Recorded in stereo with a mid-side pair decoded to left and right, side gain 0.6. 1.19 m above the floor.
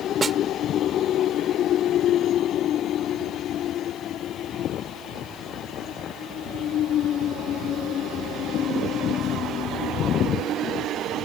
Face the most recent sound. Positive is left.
turn(degrees=-25)